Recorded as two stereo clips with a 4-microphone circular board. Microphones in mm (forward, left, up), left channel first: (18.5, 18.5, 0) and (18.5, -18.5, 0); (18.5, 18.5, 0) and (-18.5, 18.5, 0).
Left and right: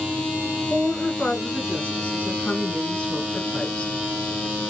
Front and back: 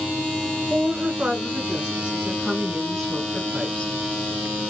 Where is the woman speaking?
135° left, 1.8 m; by 3.9 s 50° left, 1.2 m.